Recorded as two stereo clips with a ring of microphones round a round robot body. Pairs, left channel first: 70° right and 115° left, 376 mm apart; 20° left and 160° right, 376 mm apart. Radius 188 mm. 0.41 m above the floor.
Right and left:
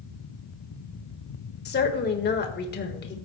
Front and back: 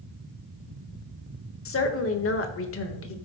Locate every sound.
1.6 s a woman speaking: 15° right, 1.6 m